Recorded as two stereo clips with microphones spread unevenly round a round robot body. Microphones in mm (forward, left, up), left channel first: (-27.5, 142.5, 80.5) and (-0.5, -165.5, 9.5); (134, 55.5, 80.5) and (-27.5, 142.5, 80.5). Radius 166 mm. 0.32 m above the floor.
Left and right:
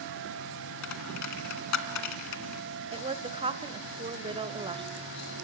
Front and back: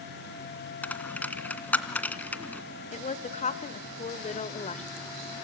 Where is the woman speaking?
45° right, 1.4 m.